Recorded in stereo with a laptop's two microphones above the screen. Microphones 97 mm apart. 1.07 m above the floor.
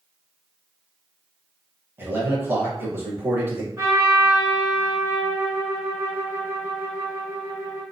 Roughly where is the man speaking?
Right.